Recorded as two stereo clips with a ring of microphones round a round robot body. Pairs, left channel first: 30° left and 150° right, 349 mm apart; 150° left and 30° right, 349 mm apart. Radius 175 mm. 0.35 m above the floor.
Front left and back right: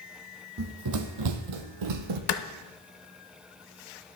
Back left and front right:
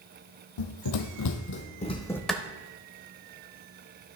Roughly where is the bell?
I don't hear a bell.